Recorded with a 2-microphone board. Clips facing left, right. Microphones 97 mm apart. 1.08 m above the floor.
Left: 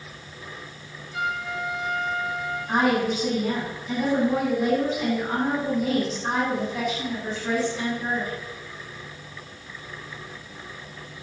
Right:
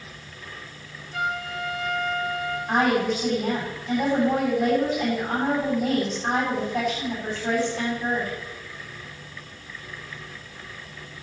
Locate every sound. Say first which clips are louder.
1.1 s a trumpet: even; 55° right (ahead or behind), 7 m
2.7 s a woman speaking: even; 55° right (ahead or behind), 7 m